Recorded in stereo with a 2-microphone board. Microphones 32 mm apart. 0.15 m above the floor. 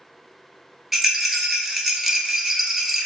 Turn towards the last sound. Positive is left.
turn(degrees=-5)  # may be behind; listen again after turning